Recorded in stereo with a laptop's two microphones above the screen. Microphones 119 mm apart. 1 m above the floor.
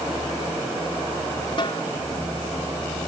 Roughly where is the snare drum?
Left.